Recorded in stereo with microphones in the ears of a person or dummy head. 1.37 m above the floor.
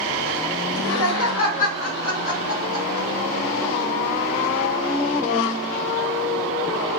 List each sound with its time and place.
0.7 s laughter: 70° left (ahead or behind), 0.7 m; by 3.1 s 60° left (ahead or behind), 2 m